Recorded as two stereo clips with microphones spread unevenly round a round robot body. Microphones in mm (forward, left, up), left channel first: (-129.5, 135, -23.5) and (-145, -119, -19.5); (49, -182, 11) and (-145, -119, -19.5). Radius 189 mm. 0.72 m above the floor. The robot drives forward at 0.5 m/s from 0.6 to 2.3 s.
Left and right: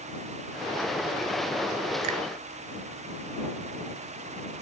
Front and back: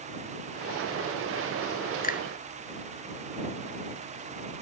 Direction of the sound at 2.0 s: 65° right.